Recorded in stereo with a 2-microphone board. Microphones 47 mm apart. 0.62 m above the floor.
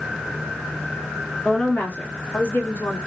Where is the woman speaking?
30° left (ahead or behind), 1.3 m; by 3.0 s 45° left (ahead or behind), 1.6 m.